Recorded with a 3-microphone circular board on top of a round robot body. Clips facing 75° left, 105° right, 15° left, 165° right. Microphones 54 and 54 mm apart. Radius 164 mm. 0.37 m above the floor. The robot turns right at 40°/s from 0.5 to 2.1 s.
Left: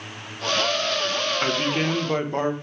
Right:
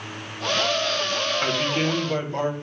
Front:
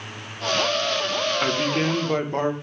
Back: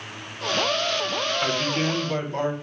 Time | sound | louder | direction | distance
1.4 | a man speaking | left 1 dB, front 2 dB | 5° left | 1.4 m